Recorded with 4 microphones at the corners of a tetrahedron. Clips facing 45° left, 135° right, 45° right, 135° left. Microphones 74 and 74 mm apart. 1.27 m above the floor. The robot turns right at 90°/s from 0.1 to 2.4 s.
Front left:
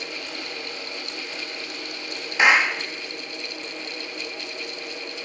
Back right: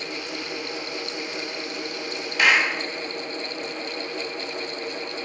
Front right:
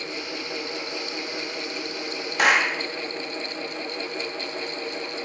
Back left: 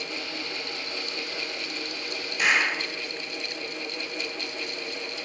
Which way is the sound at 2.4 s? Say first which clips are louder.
Front left 2 dB, front right 4 dB; 20° right.